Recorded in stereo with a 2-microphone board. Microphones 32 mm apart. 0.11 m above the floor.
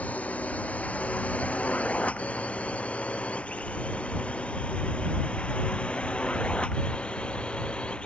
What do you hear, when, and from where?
0.0 s a drone: 50° left (ahead or behind); by 8.1 s 35° left (ahead or behind)